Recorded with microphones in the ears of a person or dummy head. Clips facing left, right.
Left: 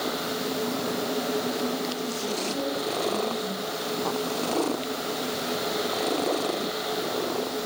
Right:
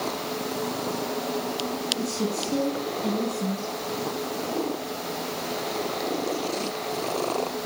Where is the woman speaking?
85° right, 5.5 m.